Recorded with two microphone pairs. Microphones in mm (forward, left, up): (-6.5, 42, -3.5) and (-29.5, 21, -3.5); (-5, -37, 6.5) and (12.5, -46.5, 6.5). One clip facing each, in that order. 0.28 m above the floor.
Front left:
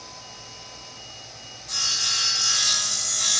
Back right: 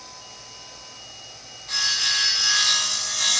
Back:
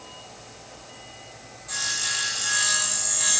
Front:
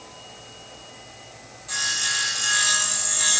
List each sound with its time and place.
1.7 s sawing: 85° right, 2.5 m